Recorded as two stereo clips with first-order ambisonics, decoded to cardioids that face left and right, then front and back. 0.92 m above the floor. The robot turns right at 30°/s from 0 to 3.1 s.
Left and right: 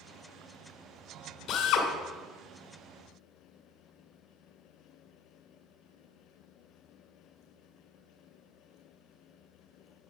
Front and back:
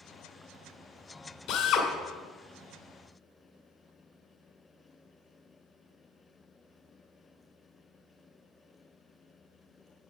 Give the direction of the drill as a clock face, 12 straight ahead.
11 o'clock.